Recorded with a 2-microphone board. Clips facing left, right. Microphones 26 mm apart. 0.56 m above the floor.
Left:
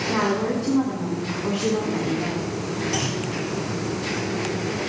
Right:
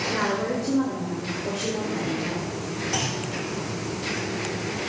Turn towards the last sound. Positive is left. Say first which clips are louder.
# left 2 dB
turn(degrees=10)  # may be behind; listen again after turning